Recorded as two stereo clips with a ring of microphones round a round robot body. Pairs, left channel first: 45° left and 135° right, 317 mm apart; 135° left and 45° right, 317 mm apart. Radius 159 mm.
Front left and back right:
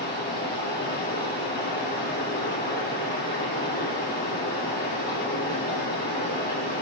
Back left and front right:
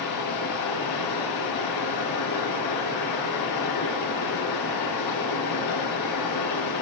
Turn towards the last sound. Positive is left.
turn(degrees=105)